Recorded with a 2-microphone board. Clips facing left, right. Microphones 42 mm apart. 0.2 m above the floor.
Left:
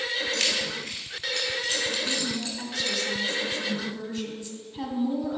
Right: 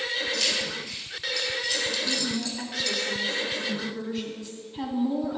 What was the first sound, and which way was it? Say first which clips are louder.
Keys jangling: left 1 dB; 65° left (ahead or behind).